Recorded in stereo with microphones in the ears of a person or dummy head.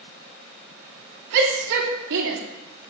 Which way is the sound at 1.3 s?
65° right (ahead or behind).